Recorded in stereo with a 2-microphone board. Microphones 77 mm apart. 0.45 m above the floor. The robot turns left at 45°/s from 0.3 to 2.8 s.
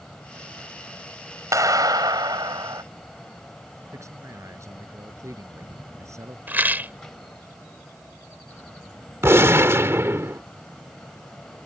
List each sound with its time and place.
1.5 s a clap: 55° right; by 2.8 s 110° right
3.9 s a man speaking: 40° right (ahead or behind)
6.5 s a rattle: 25° right (ahead or behind)
9.2 s a gunshot: 35° right (ahead or behind)